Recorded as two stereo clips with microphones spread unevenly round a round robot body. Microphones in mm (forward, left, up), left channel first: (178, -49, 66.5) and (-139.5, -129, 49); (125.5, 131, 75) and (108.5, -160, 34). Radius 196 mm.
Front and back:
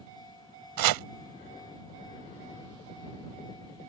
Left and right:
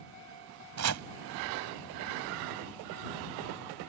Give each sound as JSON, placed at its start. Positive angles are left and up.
{"t": 0.8, "sound": "chopping", "azimuth_deg": -145}